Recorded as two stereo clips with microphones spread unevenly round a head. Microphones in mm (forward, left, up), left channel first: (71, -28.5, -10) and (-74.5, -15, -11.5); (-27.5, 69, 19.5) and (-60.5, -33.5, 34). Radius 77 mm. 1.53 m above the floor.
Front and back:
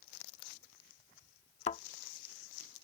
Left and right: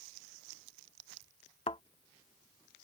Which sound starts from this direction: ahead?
A thud, at 1.7 s.